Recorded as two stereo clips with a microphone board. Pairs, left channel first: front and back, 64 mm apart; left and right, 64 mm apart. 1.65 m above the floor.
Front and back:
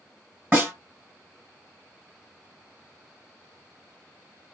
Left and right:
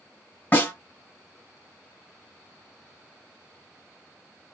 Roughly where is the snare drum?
Behind left.